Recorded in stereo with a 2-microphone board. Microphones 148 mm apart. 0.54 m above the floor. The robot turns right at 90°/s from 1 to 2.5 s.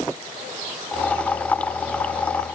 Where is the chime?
I don't hear a chime.